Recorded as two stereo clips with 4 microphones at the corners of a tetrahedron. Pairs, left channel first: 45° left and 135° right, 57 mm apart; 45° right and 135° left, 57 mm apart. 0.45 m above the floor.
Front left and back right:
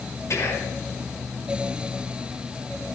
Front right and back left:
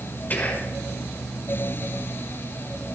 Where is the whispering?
10° left, 4.5 m.